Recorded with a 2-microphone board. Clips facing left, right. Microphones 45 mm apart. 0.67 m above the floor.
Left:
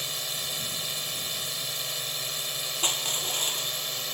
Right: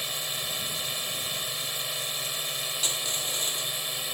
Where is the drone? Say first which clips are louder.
Right 1 dB; 10° right (ahead or behind).